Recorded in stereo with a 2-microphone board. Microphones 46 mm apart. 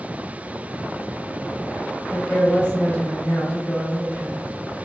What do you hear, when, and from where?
2.1 s a woman speaking: 40° left (ahead or behind), 1.2 m